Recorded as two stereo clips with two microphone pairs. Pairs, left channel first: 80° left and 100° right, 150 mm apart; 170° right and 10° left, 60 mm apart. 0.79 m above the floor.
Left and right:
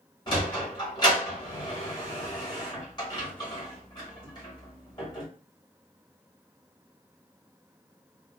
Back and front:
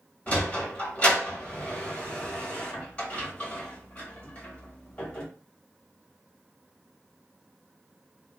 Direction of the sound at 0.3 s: 130° left.